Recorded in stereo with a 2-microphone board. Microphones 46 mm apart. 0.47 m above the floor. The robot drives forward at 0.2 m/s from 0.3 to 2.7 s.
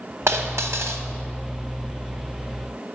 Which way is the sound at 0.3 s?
80° right.